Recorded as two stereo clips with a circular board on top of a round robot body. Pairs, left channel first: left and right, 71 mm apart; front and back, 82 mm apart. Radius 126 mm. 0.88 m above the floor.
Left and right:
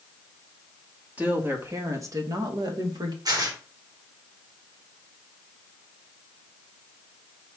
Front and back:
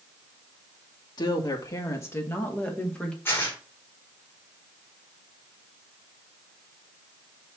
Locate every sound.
1.2 s a woman speaking: 25° right, 1.8 m; by 3.1 s 80° right, 2.5 m
3.2 s tearing paper: 60° right, 3 m